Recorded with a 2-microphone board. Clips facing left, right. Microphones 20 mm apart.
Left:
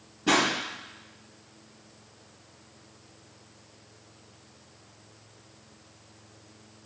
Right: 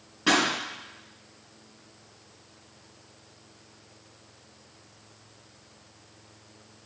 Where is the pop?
55° right (ahead or behind), 4 m.